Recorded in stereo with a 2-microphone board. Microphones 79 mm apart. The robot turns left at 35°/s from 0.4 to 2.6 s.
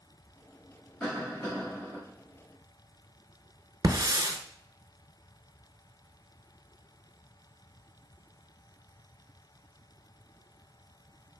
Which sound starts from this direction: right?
A hiss, at 3.8 s.